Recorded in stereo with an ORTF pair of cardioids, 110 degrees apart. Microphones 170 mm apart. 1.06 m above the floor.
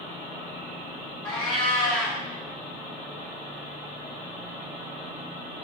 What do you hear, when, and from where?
1.2 s a cat meowing: 5° left, 1.5 m